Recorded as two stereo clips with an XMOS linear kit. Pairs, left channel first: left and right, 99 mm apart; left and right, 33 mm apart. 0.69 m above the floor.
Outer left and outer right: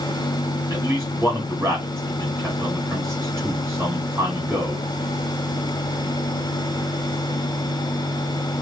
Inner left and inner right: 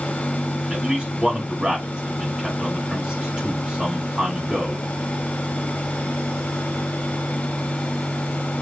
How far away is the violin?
No violin in this recording.